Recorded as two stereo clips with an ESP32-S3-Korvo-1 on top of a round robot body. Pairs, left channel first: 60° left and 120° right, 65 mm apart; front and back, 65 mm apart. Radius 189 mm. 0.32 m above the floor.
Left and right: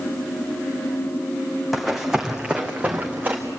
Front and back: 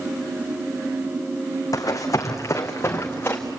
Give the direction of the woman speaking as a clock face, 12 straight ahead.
No woman speaking in this recording.